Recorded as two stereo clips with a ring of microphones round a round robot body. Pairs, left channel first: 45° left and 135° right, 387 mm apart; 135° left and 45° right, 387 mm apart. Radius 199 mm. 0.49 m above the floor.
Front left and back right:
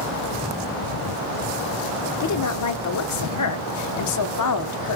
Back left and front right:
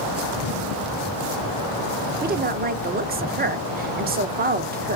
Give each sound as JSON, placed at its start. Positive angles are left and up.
{"t": 2.2, "sound": "a woman speaking", "azimuth_deg": 15, "distance_m": 1.0}